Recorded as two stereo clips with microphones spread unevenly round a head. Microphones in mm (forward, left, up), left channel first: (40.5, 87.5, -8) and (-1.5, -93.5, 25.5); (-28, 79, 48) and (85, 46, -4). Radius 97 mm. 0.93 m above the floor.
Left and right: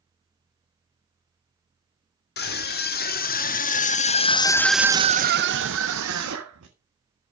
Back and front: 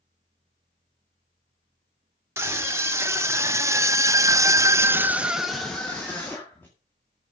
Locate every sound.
2.4 s a scream: 45° left, 3 m; by 6.7 s 110° right, 2 m